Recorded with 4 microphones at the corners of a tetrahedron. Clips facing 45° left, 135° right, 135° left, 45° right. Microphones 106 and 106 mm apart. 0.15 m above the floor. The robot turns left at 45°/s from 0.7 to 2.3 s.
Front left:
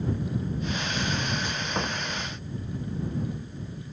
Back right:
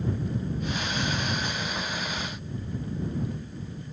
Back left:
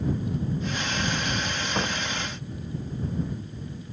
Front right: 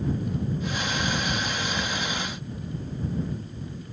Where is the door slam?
95° left; by 2.0 s 85° left.